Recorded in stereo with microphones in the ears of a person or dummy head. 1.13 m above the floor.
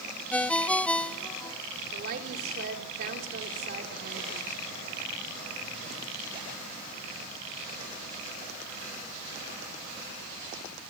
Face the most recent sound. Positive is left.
turn(degrees=-55)  # may be behind; listen again after turning